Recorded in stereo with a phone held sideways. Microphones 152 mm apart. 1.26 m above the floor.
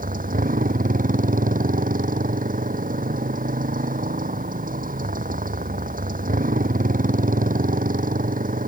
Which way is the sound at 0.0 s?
65° right (ahead or behind).